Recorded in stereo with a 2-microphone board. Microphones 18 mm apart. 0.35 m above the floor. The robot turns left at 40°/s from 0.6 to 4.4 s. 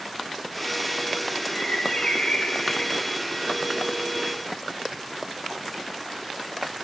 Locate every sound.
1.5 s a bird: 110° left, 8.5 m; by 3.2 s 40° left, 8.5 m